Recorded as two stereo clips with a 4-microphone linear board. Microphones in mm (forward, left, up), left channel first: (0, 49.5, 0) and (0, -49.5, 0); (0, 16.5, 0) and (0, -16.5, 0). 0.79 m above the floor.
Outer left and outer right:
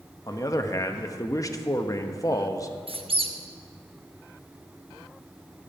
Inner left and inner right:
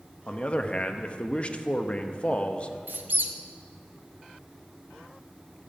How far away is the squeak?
About 0.9 m.